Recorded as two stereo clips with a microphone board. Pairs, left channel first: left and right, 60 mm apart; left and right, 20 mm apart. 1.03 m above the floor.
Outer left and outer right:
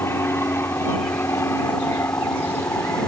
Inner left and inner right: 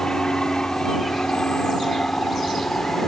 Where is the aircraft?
45° left (ahead or behind); by 3.1 s 50° left (ahead or behind).